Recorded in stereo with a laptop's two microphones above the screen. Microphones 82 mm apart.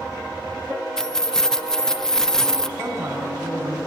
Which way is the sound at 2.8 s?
40° right (ahead or behind).